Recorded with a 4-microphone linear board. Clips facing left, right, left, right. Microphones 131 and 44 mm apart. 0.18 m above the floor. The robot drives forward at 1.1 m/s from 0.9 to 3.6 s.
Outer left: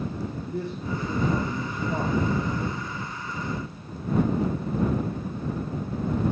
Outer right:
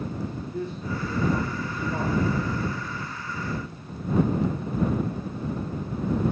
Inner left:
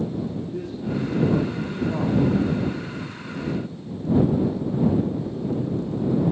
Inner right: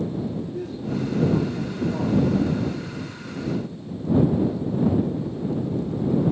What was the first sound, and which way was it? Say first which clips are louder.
A man speaking: outer left 2 dB, even; 75° left (ahead or behind).